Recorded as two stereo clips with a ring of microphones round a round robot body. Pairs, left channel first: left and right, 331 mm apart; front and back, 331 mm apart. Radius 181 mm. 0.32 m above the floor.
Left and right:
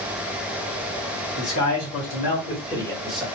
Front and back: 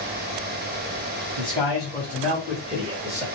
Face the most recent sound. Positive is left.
turn(degrees=-170)